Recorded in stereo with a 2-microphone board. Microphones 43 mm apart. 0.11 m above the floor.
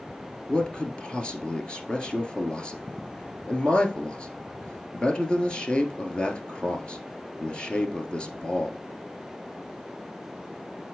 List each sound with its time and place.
0.5 s a man speaking: 25° left (ahead or behind), 1.6 m